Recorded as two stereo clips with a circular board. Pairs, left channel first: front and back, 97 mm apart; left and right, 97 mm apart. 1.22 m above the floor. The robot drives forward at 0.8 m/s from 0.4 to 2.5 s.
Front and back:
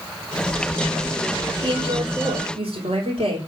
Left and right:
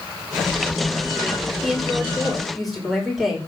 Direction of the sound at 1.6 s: Straight behind.